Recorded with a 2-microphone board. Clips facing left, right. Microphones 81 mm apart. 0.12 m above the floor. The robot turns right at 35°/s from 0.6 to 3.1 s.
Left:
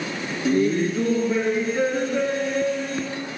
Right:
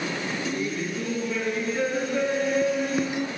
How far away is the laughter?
About 1.5 m.